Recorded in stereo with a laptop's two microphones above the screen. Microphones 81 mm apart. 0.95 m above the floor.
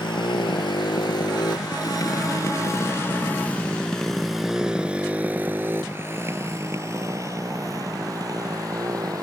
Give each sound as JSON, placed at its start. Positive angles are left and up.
{"t": 0.0, "sound": "a motorcycle", "side_deg": 75}